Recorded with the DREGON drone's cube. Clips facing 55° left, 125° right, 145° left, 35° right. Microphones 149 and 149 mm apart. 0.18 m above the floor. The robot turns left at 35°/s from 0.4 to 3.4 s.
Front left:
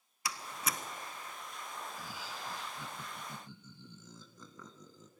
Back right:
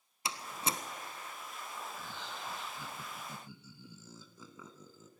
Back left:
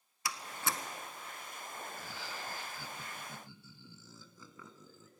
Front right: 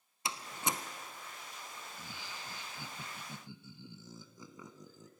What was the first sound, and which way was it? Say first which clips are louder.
A door slam: back right 2 dB, front right 1 dB; 80° right.